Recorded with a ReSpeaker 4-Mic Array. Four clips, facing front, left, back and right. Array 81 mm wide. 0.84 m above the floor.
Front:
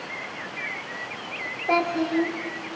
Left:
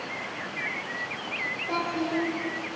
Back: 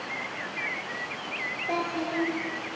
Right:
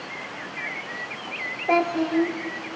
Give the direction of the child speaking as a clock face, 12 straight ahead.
2 o'clock.